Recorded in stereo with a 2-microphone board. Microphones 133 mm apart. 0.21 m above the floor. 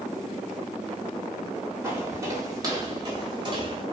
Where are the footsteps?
20° right (ahead or behind), 4.5 m; by 3.8 s 35° right (ahead or behind), 5.5 m.